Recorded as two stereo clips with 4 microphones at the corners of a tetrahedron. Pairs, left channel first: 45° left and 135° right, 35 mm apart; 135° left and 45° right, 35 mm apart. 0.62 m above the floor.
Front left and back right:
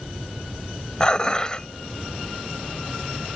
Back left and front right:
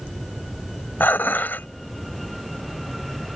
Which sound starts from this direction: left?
Dishes clattering, at 1.0 s.